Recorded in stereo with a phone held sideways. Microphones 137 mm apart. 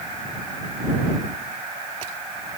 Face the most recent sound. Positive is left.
No sound to turn to.